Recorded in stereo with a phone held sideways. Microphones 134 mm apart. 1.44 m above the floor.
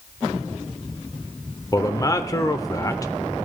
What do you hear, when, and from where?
1.7 s a man speaking: 25° left (ahead or behind), 0.5 m